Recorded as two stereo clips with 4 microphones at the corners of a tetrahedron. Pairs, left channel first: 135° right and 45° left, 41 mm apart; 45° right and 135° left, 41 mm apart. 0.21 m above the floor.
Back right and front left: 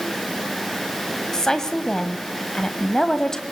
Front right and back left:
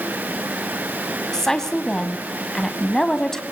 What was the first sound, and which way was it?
A woman speaking, 100° right.